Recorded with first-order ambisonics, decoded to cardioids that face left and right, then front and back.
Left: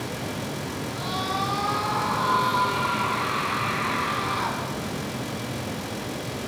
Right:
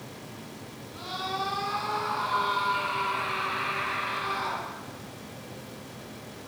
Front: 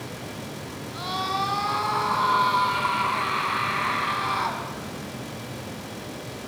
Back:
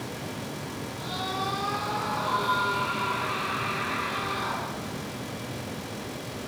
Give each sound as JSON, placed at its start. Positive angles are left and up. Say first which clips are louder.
{"t": 0.9, "sound": "a scream", "louder": "left 4 dB, front 6 dB", "azimuth_deg": 25, "distance_m": 6.5}